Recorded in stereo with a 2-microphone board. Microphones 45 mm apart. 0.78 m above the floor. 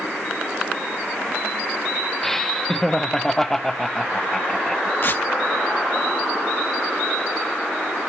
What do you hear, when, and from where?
2.2 s laughter: 5° left (ahead or behind), 1.1 m
5.0 s tearing paper: 45° left (ahead or behind), 1.0 m